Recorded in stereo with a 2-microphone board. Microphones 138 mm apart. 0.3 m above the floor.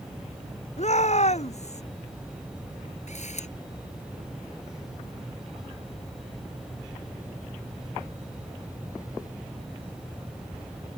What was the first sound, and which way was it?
A shout, 50° left (ahead or behind).